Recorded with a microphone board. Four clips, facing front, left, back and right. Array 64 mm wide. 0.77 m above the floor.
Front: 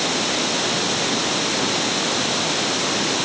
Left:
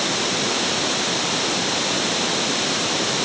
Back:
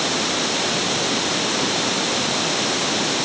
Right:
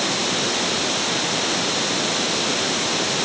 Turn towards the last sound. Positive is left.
No sound to turn to.